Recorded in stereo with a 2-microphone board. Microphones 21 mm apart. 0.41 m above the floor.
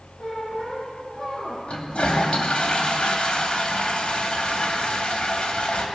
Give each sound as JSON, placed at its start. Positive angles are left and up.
{"t": 0.2, "sound": "a squeak", "side_deg": 35, "distance_m": 6.5}
{"t": 1.7, "sound": "a toilet flushing", "side_deg": 60, "distance_m": 2.5}